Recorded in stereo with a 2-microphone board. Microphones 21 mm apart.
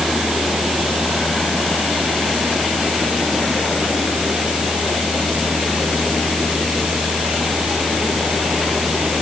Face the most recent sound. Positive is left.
No sound to turn to.